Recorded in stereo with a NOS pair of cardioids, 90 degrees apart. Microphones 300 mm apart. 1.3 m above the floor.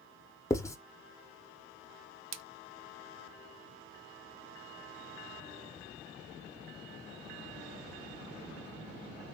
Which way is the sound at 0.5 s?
10° left.